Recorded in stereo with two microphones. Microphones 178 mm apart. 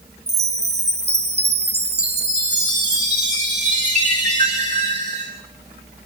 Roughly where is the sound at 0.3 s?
Right.